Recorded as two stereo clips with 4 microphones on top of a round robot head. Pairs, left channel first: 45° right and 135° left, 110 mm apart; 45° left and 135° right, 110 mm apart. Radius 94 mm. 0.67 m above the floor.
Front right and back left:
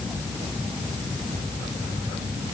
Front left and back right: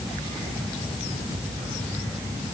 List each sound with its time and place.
Only background noise.